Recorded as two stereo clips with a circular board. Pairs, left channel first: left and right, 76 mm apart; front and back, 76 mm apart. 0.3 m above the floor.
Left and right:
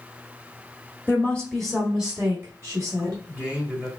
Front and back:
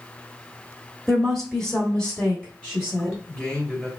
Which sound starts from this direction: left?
A woman speaking, at 1.1 s.